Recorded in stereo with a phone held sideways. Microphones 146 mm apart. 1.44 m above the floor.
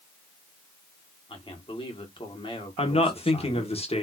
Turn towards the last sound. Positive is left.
turn(degrees=45)  # may be behind; listen again after turning